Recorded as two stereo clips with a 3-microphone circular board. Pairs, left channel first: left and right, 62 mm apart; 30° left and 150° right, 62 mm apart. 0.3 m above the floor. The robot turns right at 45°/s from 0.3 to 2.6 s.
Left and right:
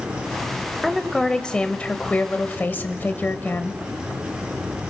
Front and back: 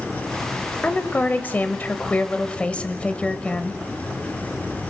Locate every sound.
0.8 s a woman speaking: 5° right, 1.1 m; by 3.8 s 75° left, 1.1 m